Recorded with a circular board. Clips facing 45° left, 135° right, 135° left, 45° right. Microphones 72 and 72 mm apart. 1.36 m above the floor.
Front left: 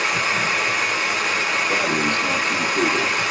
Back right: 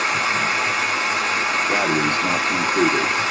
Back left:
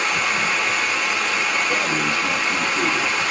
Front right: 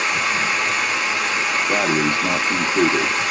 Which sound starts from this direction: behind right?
Running water, at 0.0 s.